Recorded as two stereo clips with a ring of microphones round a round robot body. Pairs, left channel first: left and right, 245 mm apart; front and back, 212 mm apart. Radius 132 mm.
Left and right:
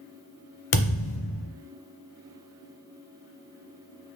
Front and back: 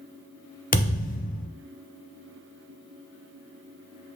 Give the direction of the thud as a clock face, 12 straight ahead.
10 o'clock.